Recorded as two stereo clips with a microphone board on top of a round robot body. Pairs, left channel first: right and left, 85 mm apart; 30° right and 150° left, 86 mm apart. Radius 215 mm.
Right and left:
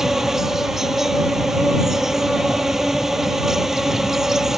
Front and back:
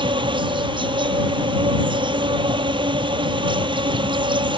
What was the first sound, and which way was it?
An insect, 175° left.